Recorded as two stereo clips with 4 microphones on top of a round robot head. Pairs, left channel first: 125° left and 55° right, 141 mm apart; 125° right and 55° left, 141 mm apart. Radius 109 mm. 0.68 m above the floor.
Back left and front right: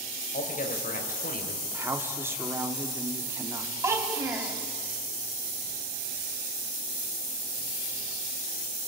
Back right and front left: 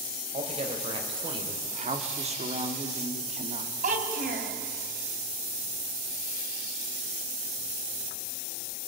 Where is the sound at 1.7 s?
20° left, 2.5 m.